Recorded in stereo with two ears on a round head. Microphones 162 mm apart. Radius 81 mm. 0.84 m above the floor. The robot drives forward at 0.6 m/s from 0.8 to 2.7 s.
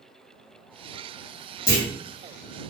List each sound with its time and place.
1.7 s a clunk: 45° left (ahead or behind), 1.6 m; by 1.9 s 40° left (ahead or behind), 1.6 m